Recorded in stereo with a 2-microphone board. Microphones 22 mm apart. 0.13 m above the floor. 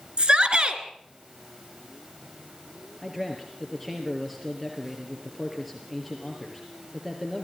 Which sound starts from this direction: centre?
A man speaking, at 3.0 s.